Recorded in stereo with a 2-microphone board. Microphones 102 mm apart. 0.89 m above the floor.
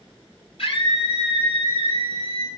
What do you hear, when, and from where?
0.6 s a scream: 70° left (ahead or behind), 5.5 m; by 2.5 s 75° left (ahead or behind), 5 m